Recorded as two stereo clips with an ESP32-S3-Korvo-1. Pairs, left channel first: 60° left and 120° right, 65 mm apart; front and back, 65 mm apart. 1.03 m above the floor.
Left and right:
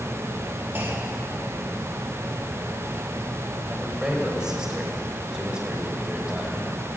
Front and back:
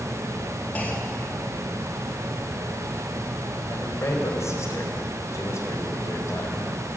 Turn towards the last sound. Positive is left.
turn(degrees=-40)